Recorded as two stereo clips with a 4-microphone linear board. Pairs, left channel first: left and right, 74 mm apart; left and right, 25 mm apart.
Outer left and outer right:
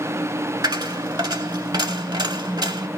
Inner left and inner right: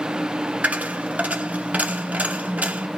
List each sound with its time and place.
0.6 s a dropped coin: 75° right (ahead or behind), 1.0 m